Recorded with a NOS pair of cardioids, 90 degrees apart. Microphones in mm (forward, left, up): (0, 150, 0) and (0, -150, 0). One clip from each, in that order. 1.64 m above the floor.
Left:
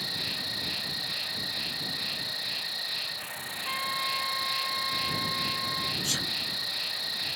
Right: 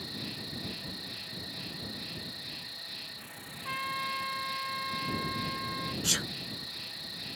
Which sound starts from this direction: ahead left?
An insect, at 0.0 s.